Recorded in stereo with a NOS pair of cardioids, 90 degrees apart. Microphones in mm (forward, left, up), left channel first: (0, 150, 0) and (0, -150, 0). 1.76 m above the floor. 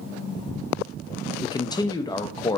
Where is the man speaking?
15° left, 0.6 m.